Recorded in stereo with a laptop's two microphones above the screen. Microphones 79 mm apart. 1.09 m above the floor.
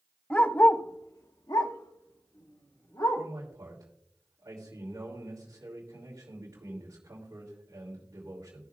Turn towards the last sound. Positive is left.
turn(degrees=-45)  # may be behind; listen again after turning